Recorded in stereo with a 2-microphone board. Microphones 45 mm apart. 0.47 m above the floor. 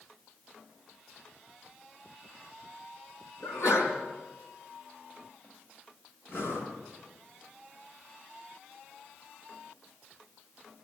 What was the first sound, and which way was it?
A sneeze, 80° left.